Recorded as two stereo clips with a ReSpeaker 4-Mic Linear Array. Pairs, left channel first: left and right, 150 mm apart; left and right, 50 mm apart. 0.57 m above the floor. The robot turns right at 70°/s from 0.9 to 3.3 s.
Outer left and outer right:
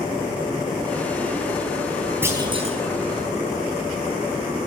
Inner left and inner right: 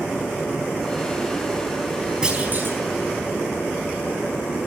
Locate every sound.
2.2 s a clunk: 165° right, 4 m; by 2.8 s 125° right, 4 m